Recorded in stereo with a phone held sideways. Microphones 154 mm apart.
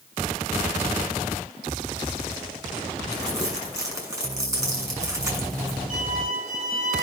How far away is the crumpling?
About 6.5 m.